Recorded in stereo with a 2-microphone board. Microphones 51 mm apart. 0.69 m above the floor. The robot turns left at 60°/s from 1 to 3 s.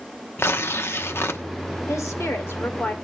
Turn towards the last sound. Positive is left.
turn(degrees=30)